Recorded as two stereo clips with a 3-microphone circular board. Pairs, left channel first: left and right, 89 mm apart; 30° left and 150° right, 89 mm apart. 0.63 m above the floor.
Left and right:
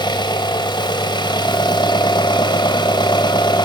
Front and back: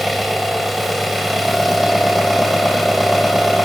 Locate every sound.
0.0 s an engine running: 120° left, 2.5 m